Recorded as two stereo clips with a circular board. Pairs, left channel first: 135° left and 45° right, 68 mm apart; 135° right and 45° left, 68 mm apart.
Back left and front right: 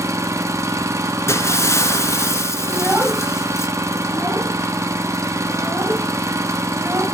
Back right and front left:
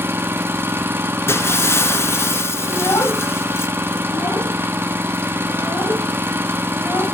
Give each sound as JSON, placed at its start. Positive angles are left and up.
{"t": 0.0, "sound": "an engine running", "azimuth_deg": -5, "distance_m": 1.3}
{"t": 1.3, "sound": "breaking glass", "azimuth_deg": 180, "distance_m": 1.8}
{"t": 2.7, "sound": "a child speaking", "azimuth_deg": -110, "distance_m": 4.5}